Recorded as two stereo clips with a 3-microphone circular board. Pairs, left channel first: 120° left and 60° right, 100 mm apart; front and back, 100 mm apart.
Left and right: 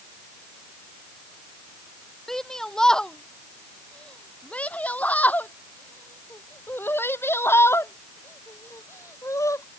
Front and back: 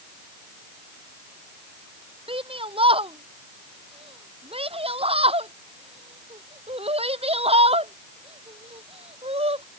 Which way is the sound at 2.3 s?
155° right.